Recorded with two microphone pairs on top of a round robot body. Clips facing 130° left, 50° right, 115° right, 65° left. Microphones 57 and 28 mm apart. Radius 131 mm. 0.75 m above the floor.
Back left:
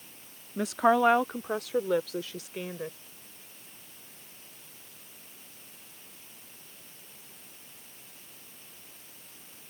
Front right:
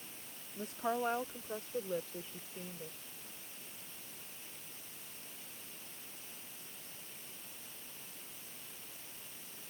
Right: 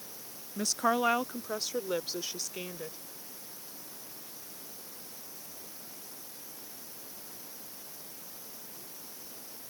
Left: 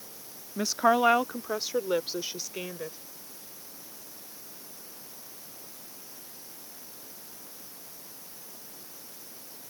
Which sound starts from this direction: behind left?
A woman speaking, at 0.6 s.